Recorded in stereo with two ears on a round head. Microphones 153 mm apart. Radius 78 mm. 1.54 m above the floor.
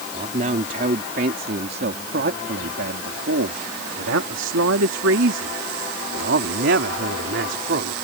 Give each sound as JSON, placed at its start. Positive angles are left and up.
{"t": 0.1, "sound": "a man speaking", "side_deg": -40}